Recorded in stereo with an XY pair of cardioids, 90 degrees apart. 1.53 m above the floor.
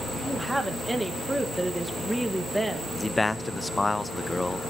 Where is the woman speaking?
10° right, 2 m.